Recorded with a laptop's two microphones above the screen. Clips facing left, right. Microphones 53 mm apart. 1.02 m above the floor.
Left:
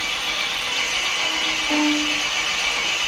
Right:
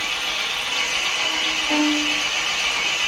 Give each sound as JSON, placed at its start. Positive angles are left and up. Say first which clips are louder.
{"t": 0.0, "sound": "an engine running", "louder": "even", "side_deg": -15, "distance_m": 1.4}
{"t": 1.7, "sound": "a violin", "louder": "even", "side_deg": -30, "distance_m": 0.7}